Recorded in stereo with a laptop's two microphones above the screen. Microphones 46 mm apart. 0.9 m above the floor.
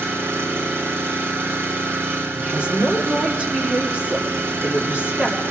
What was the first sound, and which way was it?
An engine running, 55° right (ahead or behind).